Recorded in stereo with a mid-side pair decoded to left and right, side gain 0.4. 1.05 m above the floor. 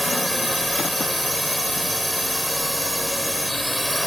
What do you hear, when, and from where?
0.0 s a drone: straight ahead